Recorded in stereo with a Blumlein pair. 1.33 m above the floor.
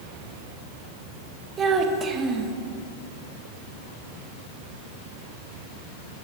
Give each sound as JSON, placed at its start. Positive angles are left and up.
{"t": 1.6, "sound": "a child speaking", "azimuth_deg": -20, "distance_m": 1.1}